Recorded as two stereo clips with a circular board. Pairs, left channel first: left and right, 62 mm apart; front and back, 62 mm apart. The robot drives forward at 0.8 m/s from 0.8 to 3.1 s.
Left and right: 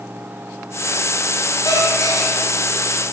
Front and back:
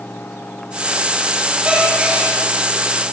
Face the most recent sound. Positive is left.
turn(degrees=120)